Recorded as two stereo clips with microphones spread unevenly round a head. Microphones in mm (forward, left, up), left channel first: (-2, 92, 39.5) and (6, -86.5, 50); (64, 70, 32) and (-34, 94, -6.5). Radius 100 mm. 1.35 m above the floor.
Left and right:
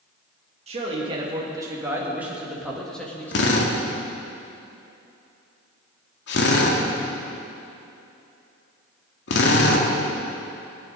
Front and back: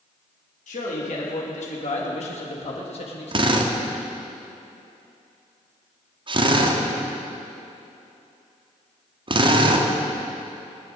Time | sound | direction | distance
0.7 | a man speaking | 30° right | 2.5 m
3.3 | a drill | 120° left | 1.6 m